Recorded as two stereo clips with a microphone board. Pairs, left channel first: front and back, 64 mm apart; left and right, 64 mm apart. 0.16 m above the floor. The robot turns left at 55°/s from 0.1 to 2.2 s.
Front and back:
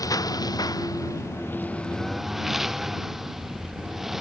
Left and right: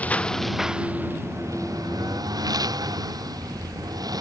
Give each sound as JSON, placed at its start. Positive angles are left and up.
{"t": 0.0, "sound": "a lawn mower", "azimuth_deg": 25}